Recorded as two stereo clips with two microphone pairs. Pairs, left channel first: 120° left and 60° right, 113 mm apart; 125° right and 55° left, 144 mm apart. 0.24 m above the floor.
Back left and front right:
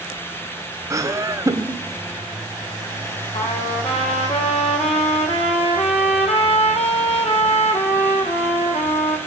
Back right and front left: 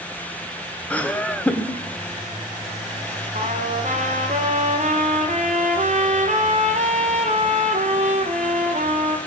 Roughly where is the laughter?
Ahead right.